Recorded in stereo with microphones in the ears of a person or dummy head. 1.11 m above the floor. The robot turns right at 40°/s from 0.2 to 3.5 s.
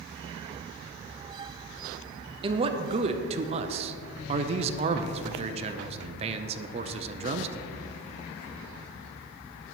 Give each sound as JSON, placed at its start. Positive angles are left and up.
{"t": 2.4, "sound": "a man speaking", "azimuth_deg": -125, "distance_m": 0.6}